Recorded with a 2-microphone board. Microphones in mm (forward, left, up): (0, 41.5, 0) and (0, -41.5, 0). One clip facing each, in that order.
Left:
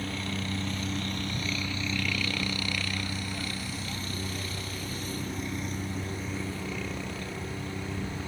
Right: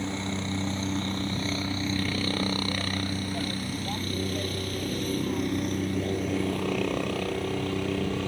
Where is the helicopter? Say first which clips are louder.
Right 3 dB; 25° right (ahead or behind); by 8.3 s 70° right (ahead or behind).